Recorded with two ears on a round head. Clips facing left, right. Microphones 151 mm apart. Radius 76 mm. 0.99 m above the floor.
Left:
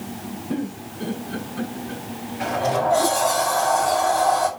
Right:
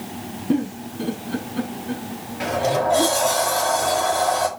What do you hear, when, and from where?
0.5 s a giggle: 55° right (ahead or behind), 6.5 m
2.4 s a sliding door: 40° right (ahead or behind), 5 m